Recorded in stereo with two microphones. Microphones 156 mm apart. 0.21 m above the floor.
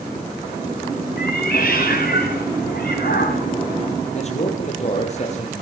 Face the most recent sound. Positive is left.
turn(degrees=45)  # may be behind; listen again after turning